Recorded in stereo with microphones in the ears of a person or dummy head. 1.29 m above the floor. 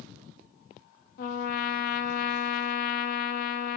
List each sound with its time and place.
1.2 s a trumpet: 50° left (ahead or behind), 0.6 m